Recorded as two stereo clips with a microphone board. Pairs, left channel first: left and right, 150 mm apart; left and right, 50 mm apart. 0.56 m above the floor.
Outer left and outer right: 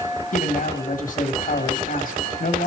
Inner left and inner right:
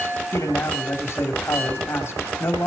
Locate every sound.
0.3 s a man speaking: 65° left (ahead or behind), 3 m